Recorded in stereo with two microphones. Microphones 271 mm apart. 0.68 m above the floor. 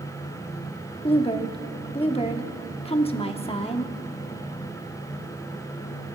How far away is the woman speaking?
About 0.9 m.